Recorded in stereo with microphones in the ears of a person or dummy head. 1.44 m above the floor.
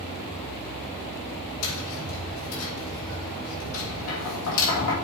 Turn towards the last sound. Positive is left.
turn(degrees=85)